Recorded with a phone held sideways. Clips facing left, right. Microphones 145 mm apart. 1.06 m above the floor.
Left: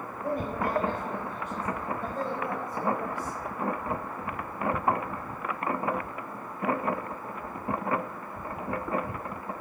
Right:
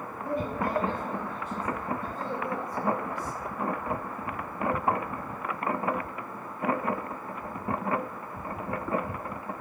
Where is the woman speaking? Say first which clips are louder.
Even; 55° left (ahead or behind), 4.5 m; by 3.4 s 85° left, 4 m.